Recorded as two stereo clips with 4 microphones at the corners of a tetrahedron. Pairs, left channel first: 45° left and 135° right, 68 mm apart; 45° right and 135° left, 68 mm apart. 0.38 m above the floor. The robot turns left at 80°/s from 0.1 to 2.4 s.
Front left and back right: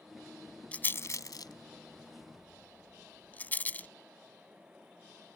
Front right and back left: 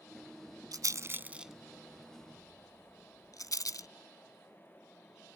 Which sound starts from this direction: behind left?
A rattle, at 0.7 s.